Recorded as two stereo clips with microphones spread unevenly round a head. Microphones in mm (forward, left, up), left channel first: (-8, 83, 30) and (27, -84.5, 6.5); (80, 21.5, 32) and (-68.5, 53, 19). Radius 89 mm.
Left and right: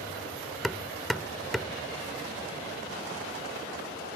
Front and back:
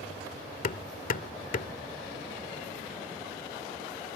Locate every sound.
0.6 s hammering: 15° left